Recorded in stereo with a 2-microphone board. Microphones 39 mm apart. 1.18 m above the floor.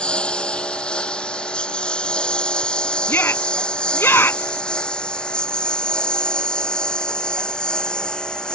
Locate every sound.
0.0 s a lawn mower: 25° left (ahead or behind); by 8.6 s 20° left (ahead or behind)
3.1 s a shout: 70° left (ahead or behind)